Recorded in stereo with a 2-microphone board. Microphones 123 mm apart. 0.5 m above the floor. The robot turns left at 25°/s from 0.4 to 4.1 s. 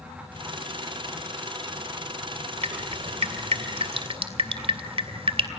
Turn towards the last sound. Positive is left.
turn(degrees=-50)  # may be behind; listen again after turning